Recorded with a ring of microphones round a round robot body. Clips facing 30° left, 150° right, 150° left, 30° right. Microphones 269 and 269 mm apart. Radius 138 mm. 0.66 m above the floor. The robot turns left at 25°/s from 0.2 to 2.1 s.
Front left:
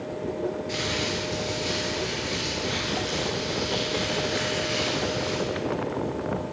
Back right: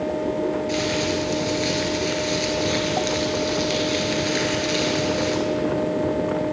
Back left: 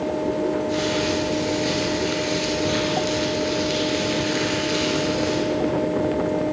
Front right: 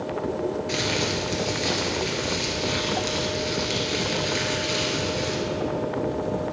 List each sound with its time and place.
0.7 s crumpling: 75° right, 2 m; by 5.4 s 110° right, 2 m